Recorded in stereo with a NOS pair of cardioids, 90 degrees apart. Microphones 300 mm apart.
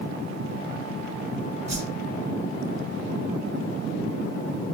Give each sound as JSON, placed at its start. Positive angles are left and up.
{"t": 1.7, "sound": "a whoosh", "azimuth_deg": -20, "distance_m": 1.0}